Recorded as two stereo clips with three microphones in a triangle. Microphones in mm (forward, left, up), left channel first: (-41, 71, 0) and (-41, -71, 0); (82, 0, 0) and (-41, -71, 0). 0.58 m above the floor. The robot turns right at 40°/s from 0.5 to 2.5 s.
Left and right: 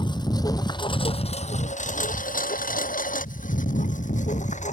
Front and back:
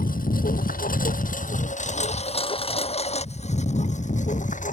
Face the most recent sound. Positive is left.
turn(degrees=55)